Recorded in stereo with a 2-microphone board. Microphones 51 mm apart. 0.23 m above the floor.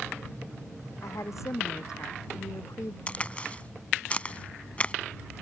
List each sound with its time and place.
1.0 s a woman speaking: 70° left (ahead or behind)
3.1 s a crack: 25° left (ahead or behind)